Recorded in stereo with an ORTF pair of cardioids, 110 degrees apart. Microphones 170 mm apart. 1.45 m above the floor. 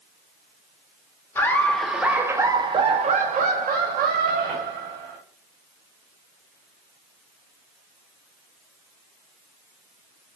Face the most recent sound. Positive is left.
turn(degrees=-80)